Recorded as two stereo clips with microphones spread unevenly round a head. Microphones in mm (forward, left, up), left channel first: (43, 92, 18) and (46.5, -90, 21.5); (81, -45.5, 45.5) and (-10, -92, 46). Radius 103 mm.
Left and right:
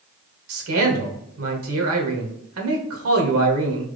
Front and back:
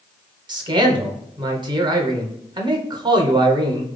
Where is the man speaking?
105° right, 1.0 m.